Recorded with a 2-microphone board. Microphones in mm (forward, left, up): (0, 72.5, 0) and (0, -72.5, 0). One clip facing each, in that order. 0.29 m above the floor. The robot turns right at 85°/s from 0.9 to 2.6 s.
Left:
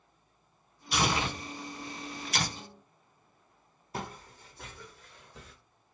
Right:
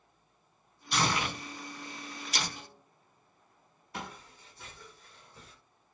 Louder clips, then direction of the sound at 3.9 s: Left 3 dB; 35° left (ahead or behind).